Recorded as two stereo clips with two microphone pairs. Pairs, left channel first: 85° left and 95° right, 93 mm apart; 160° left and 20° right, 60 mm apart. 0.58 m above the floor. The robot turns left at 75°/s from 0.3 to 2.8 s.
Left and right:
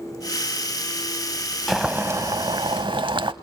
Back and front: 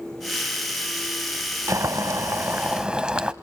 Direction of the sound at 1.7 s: 5° right.